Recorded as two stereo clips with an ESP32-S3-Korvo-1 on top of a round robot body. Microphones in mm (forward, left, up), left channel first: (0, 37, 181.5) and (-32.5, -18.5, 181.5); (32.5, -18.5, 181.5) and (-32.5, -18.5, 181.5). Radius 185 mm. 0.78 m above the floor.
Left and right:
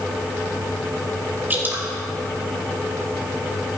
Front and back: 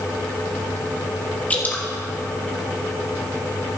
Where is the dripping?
65° right, 1.8 m.